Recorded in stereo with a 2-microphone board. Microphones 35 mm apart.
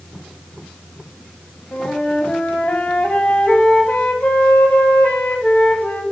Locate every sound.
1.7 s a flute: 60° left (ahead or behind), 2 m